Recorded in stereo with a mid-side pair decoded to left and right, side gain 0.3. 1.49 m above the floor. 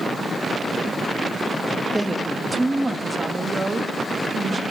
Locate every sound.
1.9 s a woman speaking: 10° right, 3 m; by 4.6 s 40° right, 3.5 m